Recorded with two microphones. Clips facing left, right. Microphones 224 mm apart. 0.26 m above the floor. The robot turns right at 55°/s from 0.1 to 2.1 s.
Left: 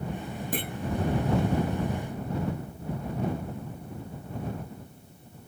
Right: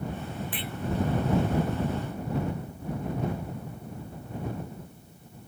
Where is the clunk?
45° left (ahead or behind); by 0.7 s 55° left (ahead or behind).